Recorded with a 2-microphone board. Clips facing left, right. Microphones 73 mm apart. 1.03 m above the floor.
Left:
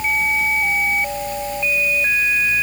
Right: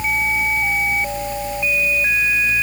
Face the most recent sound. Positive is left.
No sound to turn to.